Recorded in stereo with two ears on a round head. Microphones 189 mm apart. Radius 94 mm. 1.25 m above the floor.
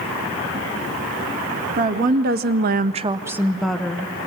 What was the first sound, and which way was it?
A woman speaking, 40° right (ahead or behind).